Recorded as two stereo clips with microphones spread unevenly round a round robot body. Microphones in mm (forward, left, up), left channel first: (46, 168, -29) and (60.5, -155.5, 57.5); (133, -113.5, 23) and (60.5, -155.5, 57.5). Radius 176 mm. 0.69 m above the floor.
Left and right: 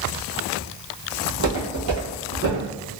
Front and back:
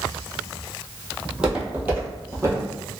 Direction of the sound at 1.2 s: 80° right.